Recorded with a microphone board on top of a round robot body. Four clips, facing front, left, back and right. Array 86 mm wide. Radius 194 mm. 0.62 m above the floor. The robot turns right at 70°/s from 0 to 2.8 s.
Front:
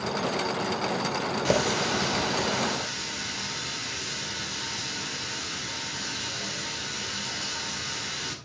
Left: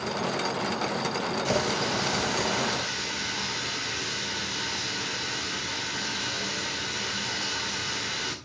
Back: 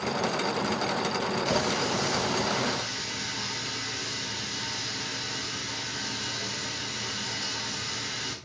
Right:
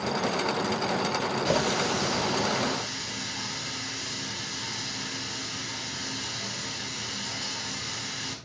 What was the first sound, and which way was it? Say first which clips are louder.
A running tap: right 1 dB, front 5 dB; 10° right.